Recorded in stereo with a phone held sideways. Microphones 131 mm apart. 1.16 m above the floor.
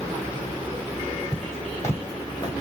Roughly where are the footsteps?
Centre.